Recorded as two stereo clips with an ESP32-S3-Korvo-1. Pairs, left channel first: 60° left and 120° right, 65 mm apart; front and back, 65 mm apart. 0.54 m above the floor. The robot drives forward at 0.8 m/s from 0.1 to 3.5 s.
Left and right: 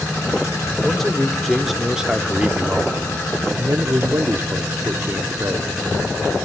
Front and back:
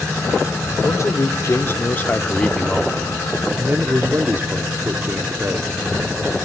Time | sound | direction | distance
0.8 | a man speaking | 20° right | 1.9 m